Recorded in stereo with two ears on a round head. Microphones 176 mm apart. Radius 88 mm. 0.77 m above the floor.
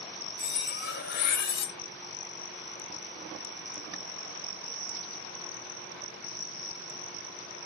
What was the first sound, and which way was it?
Cutlery clinking, 55° left (ahead or behind).